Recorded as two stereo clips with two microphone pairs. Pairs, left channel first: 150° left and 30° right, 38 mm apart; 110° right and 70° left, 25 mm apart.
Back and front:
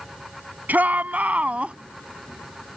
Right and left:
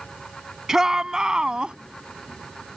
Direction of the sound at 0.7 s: 5° left.